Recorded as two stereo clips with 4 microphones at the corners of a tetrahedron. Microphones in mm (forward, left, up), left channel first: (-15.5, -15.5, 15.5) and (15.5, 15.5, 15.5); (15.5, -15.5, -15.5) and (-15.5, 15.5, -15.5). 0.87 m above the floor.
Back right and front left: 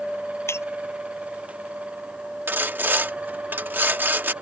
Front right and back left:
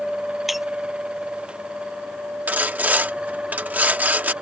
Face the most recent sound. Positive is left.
turn(degrees=85)